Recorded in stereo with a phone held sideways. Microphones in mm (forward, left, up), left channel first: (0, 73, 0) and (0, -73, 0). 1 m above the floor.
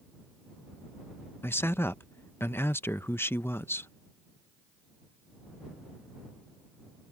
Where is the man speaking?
15° left (ahead or behind).